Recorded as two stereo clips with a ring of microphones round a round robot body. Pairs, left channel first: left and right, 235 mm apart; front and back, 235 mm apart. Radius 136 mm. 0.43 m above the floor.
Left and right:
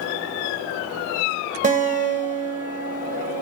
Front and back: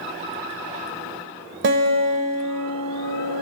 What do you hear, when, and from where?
1.6 s a guitar: 145° right, 1.2 m